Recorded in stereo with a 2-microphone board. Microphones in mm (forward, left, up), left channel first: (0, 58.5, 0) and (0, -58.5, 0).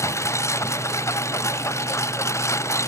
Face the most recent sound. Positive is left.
turn(degrees=25)  # may be behind; listen again after turning